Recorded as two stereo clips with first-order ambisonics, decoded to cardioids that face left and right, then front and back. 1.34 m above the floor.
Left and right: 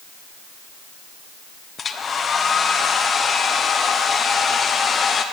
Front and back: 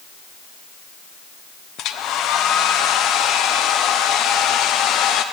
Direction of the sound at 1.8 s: 25° left.